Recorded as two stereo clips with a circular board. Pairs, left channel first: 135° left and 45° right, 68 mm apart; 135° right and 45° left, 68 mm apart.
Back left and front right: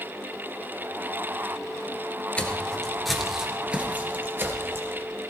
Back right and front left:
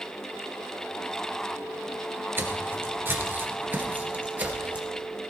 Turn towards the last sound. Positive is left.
turn(degrees=-15)